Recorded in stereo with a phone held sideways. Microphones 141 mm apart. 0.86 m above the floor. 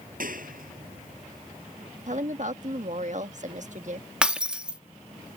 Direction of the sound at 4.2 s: 5° right (ahead or behind).